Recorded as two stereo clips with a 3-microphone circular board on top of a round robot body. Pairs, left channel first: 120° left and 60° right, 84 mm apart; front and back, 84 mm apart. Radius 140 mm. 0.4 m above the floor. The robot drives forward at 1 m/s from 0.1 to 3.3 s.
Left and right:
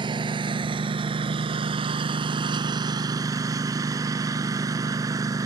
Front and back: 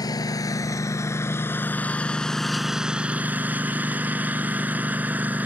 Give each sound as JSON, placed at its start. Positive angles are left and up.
{"t": 0.0, "sound": "a lawn mower", "azimuth_deg": -40}